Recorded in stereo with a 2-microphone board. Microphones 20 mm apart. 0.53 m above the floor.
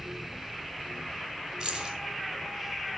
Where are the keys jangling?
40° right (ahead or behind), 3.5 m.